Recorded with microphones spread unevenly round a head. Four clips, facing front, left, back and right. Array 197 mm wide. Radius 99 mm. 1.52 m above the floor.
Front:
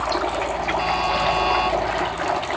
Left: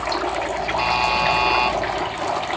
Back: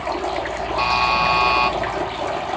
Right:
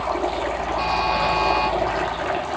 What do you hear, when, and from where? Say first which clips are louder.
0.8 s a buzzer: left 1 dB, back 5 dB; 160° left, 3 m